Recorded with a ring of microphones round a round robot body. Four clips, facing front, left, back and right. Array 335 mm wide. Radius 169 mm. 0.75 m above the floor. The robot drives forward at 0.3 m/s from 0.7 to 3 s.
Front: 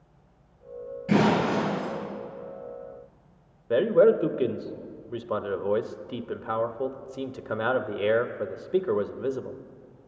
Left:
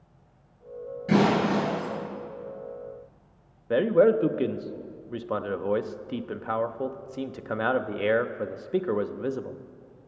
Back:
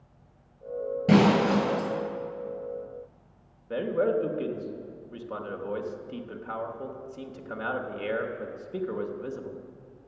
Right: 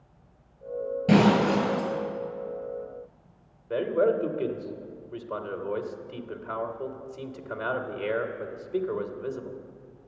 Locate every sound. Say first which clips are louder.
1.1 s breaking glass: right 2 dB, back 2 dB; 155° right, 7 m
3.7 s a man speaking: left 4 dB, front 7 dB; 55° left, 0.9 m